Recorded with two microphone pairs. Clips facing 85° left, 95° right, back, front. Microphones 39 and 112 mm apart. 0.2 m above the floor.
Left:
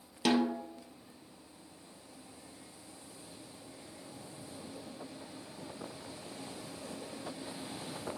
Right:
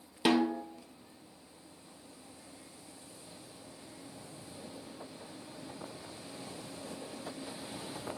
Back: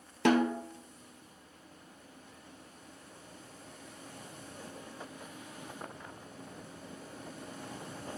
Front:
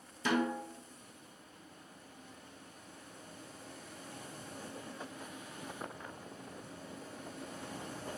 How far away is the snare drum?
About 1.1 m.